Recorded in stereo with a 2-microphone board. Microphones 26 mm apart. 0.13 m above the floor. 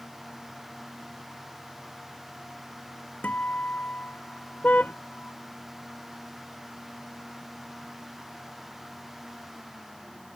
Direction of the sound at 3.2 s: 75° left (ahead or behind).